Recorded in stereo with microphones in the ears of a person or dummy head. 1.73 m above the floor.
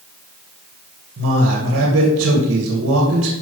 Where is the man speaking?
65° right (ahead or behind), 2 m.